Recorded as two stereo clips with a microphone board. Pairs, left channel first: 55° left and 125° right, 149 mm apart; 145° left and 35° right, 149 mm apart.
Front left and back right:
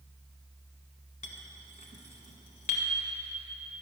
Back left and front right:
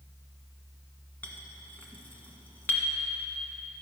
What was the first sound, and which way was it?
A clink, 70° left.